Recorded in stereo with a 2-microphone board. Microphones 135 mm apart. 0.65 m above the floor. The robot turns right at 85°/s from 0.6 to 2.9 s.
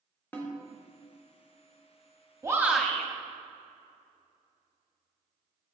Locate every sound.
0.3 s a snare drum: 15° left (ahead or behind), 1.4 m
2.4 s a shout: 35° right, 1.1 m; by 3.1 s 5° left, 1.1 m